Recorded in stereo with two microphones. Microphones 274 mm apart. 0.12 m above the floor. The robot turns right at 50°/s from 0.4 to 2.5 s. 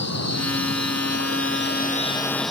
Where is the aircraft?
75° left; by 2.5 s straight behind.